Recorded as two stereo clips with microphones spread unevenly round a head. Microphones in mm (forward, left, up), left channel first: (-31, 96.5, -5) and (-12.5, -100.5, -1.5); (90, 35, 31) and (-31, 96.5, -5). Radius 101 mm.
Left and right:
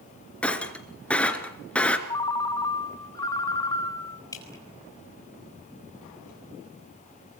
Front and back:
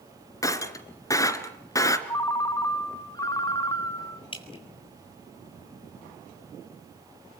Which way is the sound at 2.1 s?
25° left.